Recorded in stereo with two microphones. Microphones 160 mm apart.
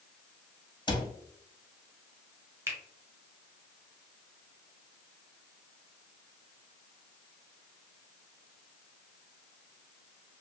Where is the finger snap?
15° right (ahead or behind), 0.9 m.